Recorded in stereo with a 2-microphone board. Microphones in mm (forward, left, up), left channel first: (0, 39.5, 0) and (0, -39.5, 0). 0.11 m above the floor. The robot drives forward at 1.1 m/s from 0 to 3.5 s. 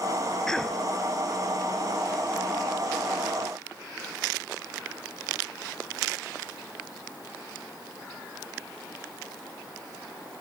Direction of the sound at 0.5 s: 5° left (ahead or behind).